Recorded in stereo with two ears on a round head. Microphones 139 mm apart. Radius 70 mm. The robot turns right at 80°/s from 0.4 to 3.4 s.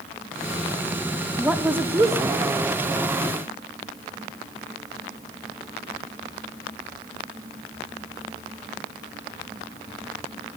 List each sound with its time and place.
1.4 s a woman speaking: 5° right (ahead or behind), 0.5 m; by 2.5 s 20° right (ahead or behind), 0.5 m